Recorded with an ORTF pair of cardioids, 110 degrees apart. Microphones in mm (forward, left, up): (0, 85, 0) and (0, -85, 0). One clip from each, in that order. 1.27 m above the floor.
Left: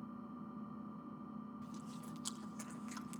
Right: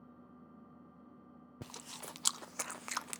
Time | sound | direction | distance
0.0 | an engine running | 60° left | 4.5 m
1.6 | chewing | 65° right | 0.5 m